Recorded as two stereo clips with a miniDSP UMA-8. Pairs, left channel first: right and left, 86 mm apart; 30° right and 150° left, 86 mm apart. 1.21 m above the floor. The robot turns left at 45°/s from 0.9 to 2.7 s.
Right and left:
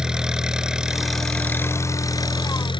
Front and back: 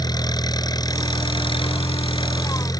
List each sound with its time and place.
0.0 s an engine running: 10° left; by 2.8 s 70° right